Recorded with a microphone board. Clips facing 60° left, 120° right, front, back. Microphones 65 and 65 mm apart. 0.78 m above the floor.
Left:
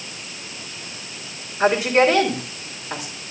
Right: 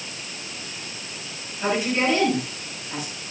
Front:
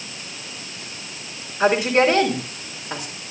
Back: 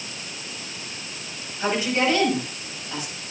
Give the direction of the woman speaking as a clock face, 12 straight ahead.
11 o'clock.